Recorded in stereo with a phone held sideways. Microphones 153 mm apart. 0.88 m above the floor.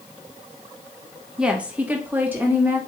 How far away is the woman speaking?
About 0.6 m.